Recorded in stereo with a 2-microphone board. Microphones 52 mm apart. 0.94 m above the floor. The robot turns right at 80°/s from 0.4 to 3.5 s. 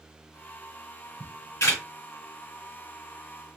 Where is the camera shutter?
80° left, 3.5 m; by 1.8 s 45° left (ahead or behind), 3.5 m.